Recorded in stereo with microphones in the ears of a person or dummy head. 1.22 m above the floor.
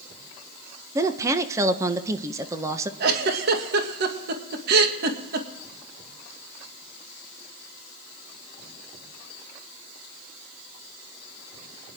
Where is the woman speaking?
20° right (ahead or behind), 1.0 m.